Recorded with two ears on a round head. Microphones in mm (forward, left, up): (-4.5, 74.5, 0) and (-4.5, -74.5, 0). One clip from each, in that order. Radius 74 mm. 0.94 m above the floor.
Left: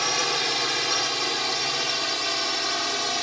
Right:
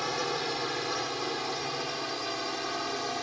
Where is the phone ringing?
No phone ringing in this recording.